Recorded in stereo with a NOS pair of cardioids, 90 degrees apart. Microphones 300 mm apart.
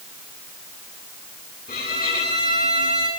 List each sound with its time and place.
1.7 s a violin: 30° left, 10 m